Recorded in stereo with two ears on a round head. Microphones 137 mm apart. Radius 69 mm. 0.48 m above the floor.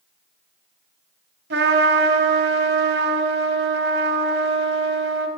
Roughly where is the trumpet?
Right.